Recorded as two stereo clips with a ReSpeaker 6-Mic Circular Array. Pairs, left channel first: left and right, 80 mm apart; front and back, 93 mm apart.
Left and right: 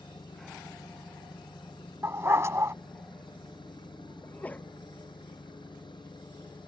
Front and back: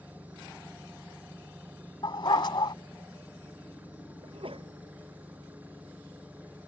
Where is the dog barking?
35° right.